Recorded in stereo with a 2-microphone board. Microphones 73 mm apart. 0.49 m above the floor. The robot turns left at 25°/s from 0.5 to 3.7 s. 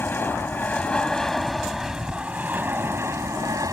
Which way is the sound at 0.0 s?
25° left (ahead or behind).